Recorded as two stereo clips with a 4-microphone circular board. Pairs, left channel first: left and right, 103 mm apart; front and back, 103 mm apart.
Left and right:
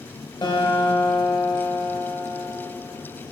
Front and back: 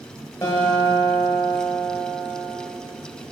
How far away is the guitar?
About 1.3 m.